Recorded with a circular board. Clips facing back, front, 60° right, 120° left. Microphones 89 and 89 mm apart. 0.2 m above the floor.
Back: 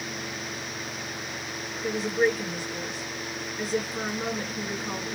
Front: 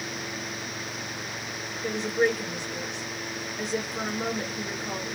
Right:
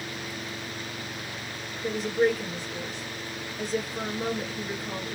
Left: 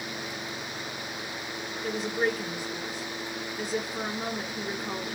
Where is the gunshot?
I don't hear a gunshot.